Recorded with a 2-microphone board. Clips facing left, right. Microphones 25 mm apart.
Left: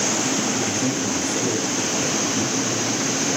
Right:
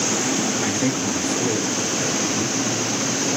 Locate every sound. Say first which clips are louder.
0.6 s a man speaking: right 1 dB; 55° right (ahead or behind), 2.5 m; by 2.7 s 15° left (ahead or behind), 2.5 m